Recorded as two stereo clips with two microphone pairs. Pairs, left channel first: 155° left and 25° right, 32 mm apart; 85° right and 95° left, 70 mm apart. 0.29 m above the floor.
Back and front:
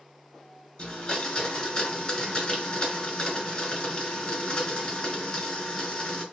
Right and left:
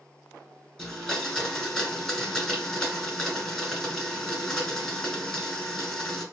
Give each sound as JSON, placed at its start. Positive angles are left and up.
{"t": 0.8, "sound": "a blender", "azimuth_deg": -160, "distance_m": 1.7}